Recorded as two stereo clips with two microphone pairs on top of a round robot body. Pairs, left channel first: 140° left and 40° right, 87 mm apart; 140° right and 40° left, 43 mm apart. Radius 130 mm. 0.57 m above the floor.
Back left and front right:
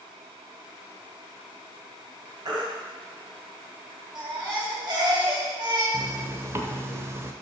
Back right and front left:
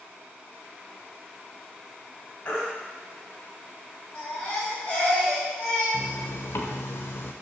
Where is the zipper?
105° right, 1.0 m.